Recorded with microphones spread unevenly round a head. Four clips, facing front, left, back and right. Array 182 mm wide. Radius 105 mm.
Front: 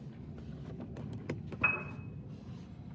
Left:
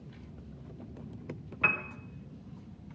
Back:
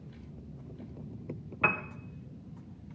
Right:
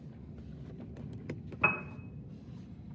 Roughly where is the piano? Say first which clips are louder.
Even, back 6 dB; behind.